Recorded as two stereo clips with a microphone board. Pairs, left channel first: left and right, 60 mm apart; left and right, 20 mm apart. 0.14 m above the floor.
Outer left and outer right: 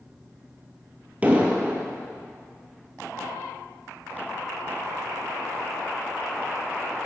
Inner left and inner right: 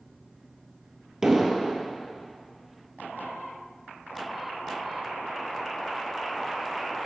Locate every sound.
1.2 s an explosion: 20° right (ahead or behind), 1.6 m